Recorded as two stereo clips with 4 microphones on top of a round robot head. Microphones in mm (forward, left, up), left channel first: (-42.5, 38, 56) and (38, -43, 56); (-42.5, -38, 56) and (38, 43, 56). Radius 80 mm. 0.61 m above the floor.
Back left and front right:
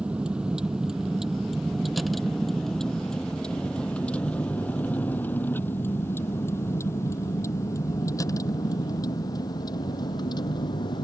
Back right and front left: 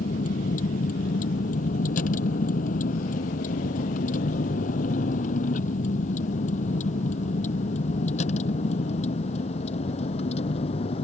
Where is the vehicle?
125° right; by 11.0 s 175° right.